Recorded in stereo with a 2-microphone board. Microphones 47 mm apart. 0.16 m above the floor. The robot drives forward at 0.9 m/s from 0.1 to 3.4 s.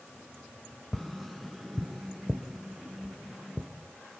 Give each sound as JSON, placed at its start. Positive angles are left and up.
{"t": 0.9, "sound": "tapping", "side_deg": 5, "distance_m": 0.7}